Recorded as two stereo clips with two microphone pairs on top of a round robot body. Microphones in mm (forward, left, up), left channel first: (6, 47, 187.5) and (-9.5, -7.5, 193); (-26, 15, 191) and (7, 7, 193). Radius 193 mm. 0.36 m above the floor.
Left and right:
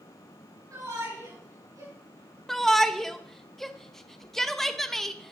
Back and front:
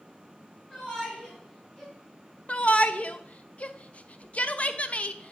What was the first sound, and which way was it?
A shout, 135° right.